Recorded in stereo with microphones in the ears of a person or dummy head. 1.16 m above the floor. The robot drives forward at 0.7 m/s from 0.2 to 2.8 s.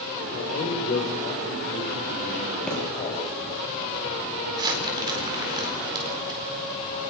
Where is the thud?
5° right (ahead or behind), 8 m.